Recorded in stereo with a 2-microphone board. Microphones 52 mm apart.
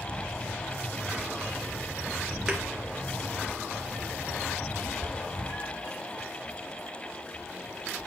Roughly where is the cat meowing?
Left.